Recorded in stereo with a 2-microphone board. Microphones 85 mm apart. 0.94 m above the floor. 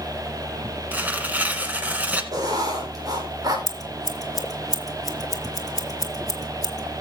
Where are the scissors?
45° left (ahead or behind), 1.1 m.